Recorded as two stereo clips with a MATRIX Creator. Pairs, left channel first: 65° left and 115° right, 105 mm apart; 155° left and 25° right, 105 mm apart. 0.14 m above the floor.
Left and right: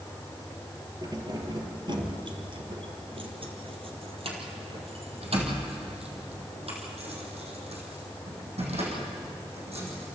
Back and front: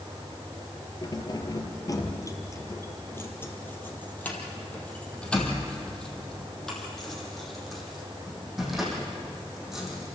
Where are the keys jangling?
160° right, 2.5 m; by 10.1 s 110° right, 6 m.